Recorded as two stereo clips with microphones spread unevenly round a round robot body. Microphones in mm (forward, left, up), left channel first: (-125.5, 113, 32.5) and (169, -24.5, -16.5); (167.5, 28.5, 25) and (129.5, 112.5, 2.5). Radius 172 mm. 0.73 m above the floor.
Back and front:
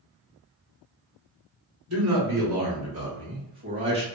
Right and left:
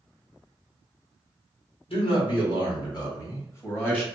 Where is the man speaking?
45° right, 1.7 m; by 4.0 s 15° left, 1.4 m.